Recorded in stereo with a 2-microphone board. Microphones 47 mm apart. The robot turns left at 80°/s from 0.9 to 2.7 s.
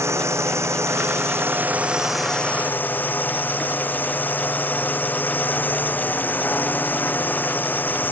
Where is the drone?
80° right; by 8.1 s 135° left.